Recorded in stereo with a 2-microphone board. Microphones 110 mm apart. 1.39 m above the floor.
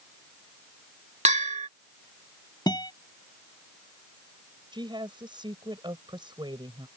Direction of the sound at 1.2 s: 80° right.